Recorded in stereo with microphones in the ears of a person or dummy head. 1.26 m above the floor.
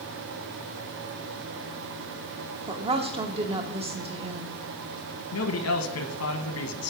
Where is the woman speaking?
25° right (ahead or behind), 1.0 m.